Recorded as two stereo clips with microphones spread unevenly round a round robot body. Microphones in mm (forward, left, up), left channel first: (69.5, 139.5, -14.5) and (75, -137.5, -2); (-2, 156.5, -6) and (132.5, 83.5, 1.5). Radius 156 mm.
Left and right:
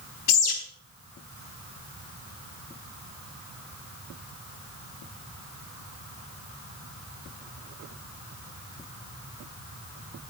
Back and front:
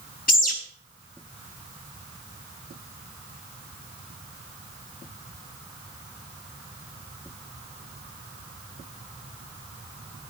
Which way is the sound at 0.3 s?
125° left.